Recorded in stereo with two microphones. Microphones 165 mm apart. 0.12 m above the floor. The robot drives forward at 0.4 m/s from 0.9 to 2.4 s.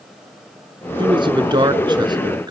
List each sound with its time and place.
1.0 s a man speaking: 30° right (ahead or behind), 1.1 m; by 2.5 s 25° right (ahead or behind), 1.3 m